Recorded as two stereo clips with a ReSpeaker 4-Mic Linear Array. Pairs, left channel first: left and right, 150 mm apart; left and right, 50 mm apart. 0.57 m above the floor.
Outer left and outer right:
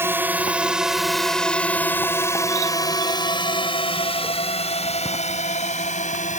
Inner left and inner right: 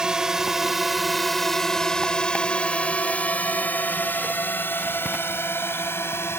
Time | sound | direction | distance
0.0 | a drone | 15° right (ahead or behind) | ?